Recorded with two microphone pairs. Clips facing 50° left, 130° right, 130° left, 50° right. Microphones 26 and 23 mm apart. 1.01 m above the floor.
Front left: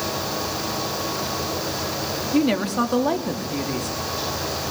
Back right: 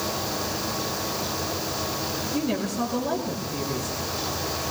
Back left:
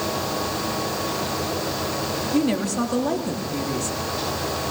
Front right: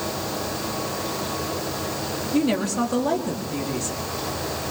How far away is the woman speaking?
About 2.5 m.